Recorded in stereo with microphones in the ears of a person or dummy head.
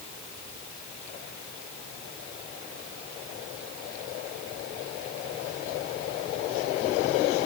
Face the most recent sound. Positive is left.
No sound to turn to.